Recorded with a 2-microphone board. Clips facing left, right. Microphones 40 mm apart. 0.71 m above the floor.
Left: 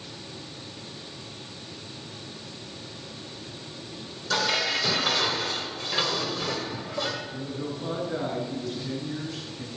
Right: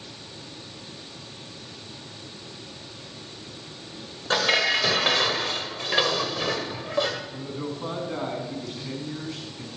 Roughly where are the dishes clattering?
Right.